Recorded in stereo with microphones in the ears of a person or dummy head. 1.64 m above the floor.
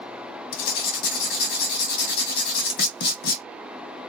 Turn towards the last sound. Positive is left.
turn(degrees=60)  # may be behind; listen again after turning